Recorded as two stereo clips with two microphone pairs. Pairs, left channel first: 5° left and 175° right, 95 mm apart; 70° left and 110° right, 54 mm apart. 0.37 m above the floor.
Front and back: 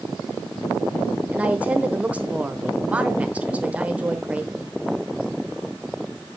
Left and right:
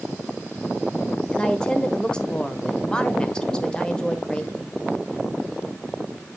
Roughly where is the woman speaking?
Behind left.